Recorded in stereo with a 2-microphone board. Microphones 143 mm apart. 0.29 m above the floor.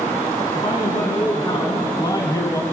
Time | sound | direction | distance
0.5 | a man speaking | 30° left (ahead or behind) | 3 m